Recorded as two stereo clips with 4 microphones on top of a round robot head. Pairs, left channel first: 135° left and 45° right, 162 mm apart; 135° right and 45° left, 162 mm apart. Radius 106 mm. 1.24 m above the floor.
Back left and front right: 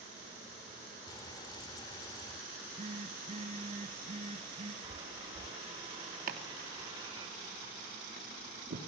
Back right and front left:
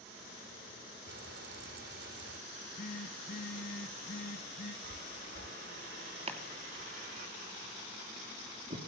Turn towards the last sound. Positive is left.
turn(degrees=-10)